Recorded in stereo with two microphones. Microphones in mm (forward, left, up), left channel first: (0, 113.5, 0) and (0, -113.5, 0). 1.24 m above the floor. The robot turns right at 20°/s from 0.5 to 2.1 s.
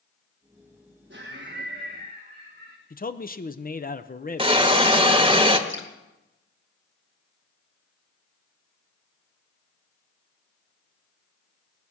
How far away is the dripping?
About 1.9 m.